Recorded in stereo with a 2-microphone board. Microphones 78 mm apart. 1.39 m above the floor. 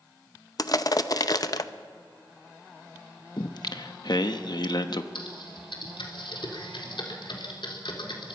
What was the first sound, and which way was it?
Crushing, 50° left (ahead or behind).